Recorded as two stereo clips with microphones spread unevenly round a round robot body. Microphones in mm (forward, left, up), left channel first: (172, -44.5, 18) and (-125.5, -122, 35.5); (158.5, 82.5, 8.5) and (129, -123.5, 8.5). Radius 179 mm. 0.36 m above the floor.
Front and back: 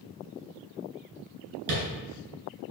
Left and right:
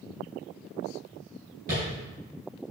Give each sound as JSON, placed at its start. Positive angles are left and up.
{"t": 1.7, "sound": "tapping", "azimuth_deg": -165, "distance_m": 3.5}